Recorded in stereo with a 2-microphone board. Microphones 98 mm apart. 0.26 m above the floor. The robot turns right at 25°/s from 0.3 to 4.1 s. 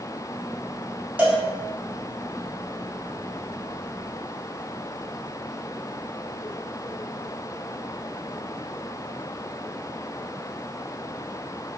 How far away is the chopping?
No chopping in this recording.